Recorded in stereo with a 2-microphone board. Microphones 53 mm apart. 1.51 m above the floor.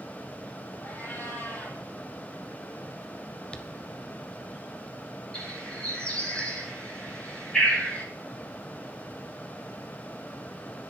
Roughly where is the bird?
Centre.